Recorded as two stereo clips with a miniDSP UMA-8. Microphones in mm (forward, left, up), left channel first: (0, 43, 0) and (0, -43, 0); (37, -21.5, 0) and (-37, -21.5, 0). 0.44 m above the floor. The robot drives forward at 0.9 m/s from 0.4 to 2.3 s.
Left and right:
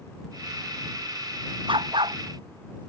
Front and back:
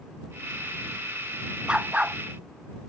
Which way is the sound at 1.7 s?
105° right.